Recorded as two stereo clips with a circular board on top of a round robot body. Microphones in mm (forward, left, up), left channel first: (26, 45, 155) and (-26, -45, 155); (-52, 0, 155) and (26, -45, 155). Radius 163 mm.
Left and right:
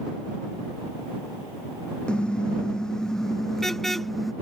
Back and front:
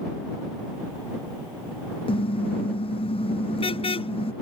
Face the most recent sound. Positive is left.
turn(degrees=150)